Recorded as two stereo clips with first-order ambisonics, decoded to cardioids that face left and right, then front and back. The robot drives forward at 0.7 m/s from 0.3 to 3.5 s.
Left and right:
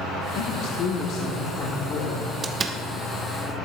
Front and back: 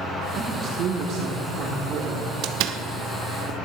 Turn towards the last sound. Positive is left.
turn(degrees=-170)